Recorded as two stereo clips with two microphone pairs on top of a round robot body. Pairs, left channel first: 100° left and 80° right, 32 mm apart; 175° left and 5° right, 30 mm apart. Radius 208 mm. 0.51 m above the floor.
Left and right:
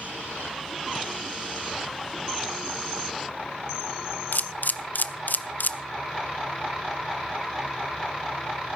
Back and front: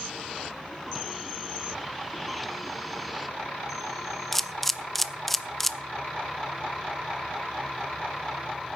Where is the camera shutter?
80° left, 0.6 m.